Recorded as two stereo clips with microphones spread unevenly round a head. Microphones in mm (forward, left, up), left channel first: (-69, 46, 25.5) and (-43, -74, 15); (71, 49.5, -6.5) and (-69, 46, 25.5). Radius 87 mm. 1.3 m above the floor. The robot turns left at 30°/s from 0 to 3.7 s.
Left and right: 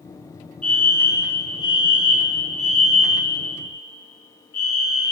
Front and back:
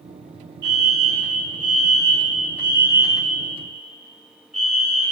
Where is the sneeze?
No sneeze in this recording.